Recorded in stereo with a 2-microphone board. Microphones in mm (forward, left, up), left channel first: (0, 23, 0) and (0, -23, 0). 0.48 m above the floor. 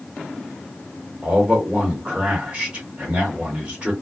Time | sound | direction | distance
1.2 | a man speaking | 25° right (ahead or behind) | 1.9 m